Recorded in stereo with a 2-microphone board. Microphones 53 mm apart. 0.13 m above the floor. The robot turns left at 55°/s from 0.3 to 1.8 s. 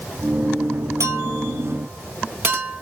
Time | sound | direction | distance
1.0 | a clink | 70° right (ahead or behind) | 2 m